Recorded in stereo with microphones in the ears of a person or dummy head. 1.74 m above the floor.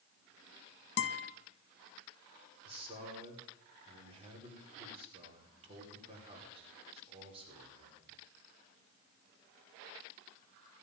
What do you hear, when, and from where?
1.0 s a guitar: 65° left (ahead or behind), 2.0 m
2.6 s a man speaking: 35° right (ahead or behind), 5.5 m